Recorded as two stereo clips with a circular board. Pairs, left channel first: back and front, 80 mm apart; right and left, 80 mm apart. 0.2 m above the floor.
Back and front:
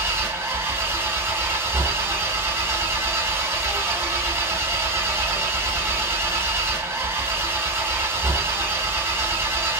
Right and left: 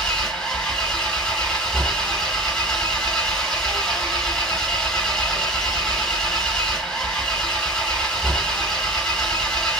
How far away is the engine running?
About 0.8 m.